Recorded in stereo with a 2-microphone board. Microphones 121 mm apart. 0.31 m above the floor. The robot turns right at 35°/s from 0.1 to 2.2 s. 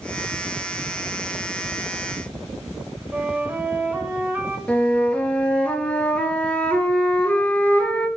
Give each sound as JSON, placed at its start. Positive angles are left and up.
{"t": 3.1, "sound": "a flute", "side_deg": -15, "distance_m": 1.1}
{"t": 4.7, "sound": "a flute", "side_deg": 10, "distance_m": 1.3}